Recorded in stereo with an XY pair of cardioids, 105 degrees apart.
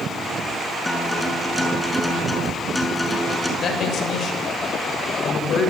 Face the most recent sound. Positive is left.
turn(degrees=60)